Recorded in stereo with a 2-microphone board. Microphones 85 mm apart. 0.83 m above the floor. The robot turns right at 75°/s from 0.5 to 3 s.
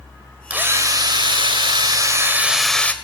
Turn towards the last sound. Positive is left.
turn(degrees=25)